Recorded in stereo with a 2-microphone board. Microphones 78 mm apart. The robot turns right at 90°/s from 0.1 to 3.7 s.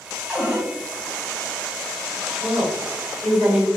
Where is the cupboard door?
170° right, 0.8 m; by 0.7 s 135° right, 0.8 m.